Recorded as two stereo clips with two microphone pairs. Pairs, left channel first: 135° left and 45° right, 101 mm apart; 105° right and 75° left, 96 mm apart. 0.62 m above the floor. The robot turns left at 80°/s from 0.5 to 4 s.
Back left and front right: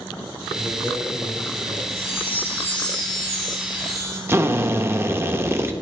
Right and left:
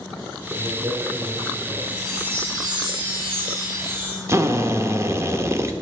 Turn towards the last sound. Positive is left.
turn(degrees=20)